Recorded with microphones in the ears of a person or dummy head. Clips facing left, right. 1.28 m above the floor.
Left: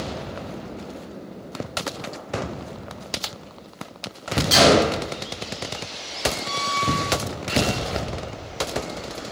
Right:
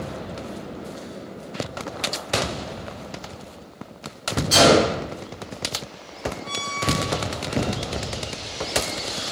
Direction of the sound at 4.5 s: 30° left (ahead or behind).